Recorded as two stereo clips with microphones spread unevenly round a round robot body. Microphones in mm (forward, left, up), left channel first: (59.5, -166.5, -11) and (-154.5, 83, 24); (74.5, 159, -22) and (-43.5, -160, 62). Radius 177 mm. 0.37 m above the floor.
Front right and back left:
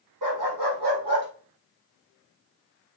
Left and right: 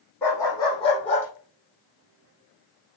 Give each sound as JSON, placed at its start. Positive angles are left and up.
{"t": 0.2, "sound": "a dog barking", "azimuth_deg": 155, "distance_m": 4.0}